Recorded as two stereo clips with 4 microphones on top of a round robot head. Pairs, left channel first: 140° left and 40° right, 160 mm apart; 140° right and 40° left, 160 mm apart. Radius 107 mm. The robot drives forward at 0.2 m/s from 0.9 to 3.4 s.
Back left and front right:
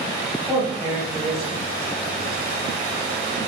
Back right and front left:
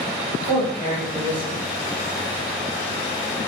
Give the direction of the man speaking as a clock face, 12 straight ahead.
10 o'clock.